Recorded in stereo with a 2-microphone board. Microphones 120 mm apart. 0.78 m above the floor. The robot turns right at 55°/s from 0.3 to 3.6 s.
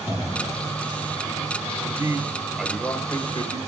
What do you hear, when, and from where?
1.8 s a man speaking: 40° right, 3.5 m; by 3.6 s 55° left, 3.5 m